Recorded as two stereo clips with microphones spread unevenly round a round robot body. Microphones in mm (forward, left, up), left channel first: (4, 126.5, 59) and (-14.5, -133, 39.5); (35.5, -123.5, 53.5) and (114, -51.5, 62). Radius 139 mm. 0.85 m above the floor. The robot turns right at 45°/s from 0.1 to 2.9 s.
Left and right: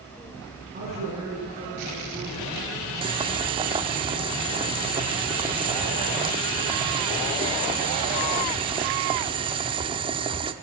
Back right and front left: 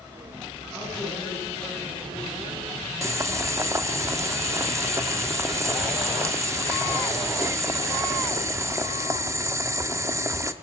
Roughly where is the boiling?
Ahead.